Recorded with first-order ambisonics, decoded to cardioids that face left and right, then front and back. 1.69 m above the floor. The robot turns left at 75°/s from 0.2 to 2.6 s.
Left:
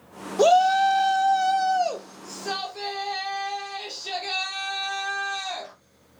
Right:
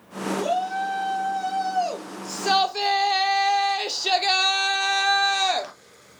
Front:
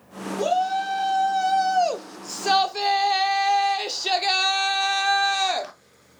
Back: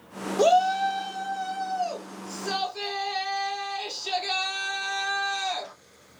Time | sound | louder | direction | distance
0.4 | a shout | left 9 dB, back 3 dB | 120° left | 0.9 m